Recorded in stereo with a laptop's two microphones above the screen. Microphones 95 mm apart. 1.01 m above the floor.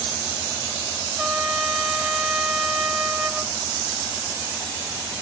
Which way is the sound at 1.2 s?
5° right (ahead or behind).